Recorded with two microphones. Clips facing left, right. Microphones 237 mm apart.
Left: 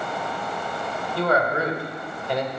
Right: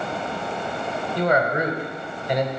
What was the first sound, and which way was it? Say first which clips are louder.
A man speaking: right 1 dB; 15° right (ahead or behind).